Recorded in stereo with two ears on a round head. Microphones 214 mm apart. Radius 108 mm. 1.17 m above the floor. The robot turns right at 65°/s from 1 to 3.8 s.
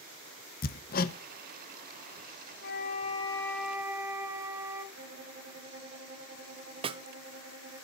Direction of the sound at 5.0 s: 55° right (ahead or behind).